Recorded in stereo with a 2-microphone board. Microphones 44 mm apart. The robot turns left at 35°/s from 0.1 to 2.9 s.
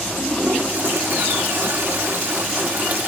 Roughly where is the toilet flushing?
Ahead right.